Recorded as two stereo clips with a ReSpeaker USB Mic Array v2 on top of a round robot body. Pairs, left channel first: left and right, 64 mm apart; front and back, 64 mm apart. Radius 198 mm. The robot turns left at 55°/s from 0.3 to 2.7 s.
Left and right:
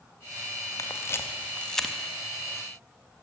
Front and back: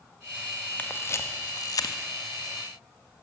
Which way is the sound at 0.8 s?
65° left.